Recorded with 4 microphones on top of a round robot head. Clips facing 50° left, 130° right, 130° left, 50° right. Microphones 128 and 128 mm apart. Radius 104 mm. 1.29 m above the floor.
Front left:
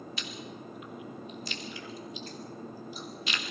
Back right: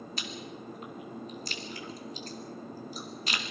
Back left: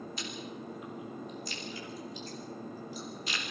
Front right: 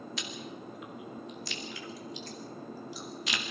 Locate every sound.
0.2 s chewing: 75° right, 2.5 m